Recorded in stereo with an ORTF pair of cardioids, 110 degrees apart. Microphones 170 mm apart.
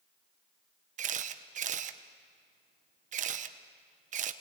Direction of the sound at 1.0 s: 45° right.